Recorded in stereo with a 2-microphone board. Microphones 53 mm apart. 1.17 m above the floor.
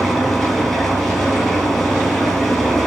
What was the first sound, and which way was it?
An engine running, centre (ahead or behind).